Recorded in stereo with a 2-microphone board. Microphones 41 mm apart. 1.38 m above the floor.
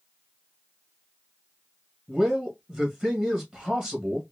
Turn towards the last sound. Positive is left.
turn(degrees=-30)  # may be behind; listen again after turning